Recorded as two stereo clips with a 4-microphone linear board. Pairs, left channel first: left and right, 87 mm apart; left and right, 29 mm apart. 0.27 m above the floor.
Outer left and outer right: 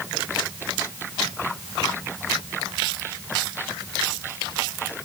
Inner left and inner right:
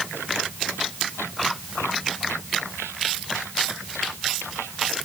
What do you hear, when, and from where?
Only background noise.